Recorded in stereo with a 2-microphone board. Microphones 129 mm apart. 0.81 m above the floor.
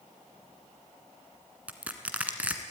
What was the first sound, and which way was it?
Crushing, 10° right (ahead or behind).